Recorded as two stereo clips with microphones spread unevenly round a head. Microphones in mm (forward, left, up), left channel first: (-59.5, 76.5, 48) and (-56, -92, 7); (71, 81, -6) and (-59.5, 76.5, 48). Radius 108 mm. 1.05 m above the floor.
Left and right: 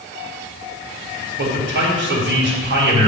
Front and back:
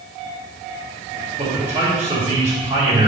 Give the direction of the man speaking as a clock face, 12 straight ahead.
3 o'clock.